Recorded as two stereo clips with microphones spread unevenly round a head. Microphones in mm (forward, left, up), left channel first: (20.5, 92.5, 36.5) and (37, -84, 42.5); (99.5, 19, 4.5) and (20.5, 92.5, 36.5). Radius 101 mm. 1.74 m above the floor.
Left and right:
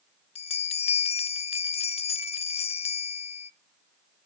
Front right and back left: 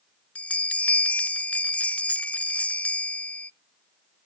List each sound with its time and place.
0.3 s a bell: 35° left, 0.5 m